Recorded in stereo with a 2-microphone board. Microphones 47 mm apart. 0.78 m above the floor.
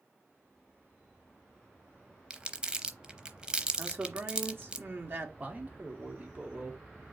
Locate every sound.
2.3 s crumpling: 20° right (ahead or behind), 0.7 m
3.8 s a man speaking: 50° right (ahead or behind), 1.5 m
5.4 s a man speaking: 30° right (ahead or behind), 1.7 m